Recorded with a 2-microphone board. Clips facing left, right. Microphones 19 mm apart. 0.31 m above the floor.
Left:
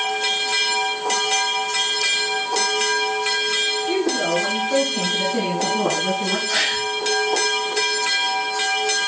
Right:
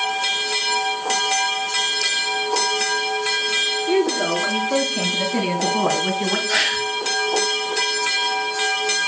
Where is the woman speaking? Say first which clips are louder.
Right 1 dB; 25° right (ahead or behind), 5 m; by 6.4 s 40° right (ahead or behind), 2.5 m.